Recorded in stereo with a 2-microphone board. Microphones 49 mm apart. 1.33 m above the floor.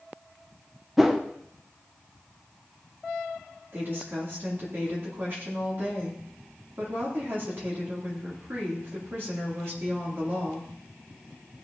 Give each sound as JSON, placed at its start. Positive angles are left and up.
{"t": 1.0, "sound": "a whoosh", "side_deg": -5, "distance_m": 0.8}
{"t": 3.7, "sound": "a woman speaking", "side_deg": -50, "distance_m": 2.5}